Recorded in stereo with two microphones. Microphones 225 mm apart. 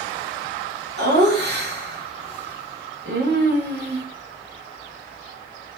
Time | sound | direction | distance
1.0 | laughter | 50° right (ahead or behind) | 1.5 m